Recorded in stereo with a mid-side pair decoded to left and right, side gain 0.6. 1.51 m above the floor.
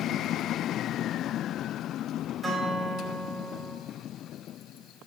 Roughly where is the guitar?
Ahead.